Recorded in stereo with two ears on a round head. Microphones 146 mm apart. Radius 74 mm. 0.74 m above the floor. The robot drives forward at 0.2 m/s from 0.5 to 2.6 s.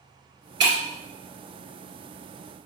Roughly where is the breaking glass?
Right.